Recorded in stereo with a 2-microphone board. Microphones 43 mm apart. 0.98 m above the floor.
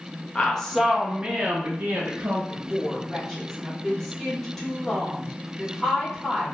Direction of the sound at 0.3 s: 25° left (ahead or behind).